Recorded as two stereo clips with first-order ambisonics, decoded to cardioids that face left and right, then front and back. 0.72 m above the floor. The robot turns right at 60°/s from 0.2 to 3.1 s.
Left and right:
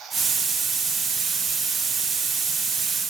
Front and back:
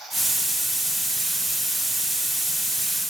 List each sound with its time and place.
Only background noise.